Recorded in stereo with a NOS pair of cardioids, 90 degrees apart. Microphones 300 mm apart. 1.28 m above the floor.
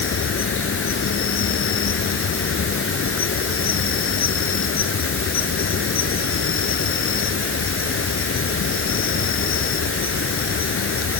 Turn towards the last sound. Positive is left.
turn(degrees=45)